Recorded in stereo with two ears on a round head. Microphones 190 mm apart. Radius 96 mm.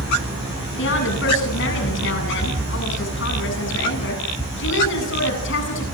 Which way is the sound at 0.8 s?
55° left (ahead or behind).